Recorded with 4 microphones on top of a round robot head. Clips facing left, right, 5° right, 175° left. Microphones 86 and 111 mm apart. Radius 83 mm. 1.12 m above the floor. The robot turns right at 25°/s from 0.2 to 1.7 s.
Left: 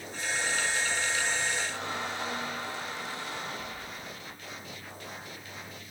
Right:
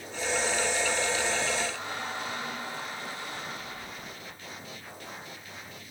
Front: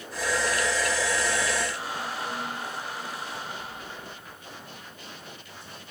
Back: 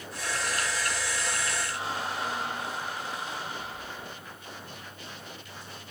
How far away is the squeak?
About 4.5 m.